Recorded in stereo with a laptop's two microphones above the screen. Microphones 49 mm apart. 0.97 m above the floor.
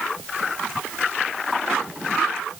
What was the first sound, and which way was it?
Only background noise.